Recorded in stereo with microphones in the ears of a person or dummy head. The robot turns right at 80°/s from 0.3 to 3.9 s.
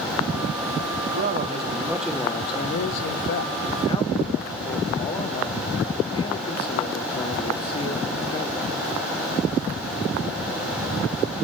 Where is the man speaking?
70° right, 1.0 m; by 8.7 s 160° left, 1.0 m.